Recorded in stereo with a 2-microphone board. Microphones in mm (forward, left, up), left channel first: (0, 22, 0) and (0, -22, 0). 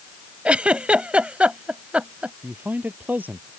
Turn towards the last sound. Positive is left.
turn(degrees=-45)  # may be behind; listen again after turning